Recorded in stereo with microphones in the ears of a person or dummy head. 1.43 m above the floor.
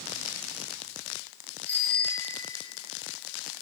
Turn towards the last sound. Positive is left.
turn(degrees=10)  # may be behind; listen again after turning